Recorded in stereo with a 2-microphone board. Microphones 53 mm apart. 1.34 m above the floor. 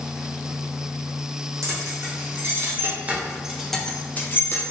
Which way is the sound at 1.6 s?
60° right (ahead or behind).